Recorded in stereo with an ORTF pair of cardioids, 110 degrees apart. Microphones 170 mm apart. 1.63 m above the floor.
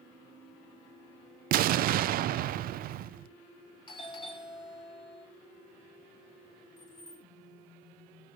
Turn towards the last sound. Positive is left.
turn(degrees=20)